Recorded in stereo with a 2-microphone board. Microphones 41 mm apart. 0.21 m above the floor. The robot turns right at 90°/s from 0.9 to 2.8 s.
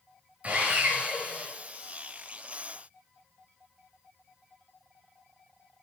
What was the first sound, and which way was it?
Sawing, 35° right.